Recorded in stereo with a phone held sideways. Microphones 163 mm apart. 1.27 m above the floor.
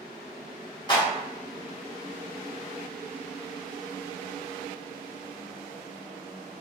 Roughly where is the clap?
Left.